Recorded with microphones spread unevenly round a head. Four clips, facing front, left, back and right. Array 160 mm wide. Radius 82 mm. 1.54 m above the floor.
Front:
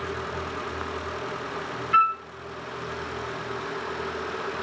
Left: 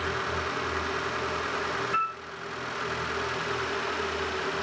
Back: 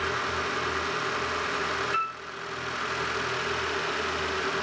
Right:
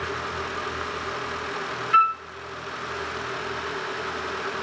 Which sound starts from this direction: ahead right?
A flute, at 1.9 s.